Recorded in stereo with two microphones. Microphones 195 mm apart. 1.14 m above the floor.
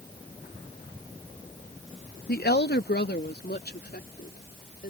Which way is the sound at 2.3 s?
50° left (ahead or behind).